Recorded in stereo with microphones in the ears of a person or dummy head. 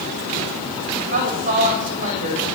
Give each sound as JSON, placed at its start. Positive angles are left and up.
{"t": 1.1, "sound": "a woman speaking", "side_deg": -35, "distance_m": 7.0}